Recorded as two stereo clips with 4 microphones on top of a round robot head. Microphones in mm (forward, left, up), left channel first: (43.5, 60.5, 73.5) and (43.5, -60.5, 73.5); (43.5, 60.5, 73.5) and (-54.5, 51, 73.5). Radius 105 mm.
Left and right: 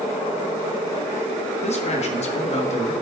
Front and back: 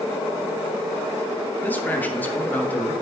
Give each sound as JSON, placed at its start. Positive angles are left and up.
{"t": 1.6, "sound": "a man speaking", "azimuth_deg": 75, "distance_m": 1.8}